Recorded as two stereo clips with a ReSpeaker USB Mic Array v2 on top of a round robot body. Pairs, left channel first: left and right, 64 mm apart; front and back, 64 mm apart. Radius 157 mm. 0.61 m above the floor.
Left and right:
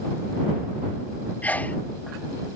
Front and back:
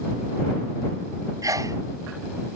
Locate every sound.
1.4 s a sneeze: 155° left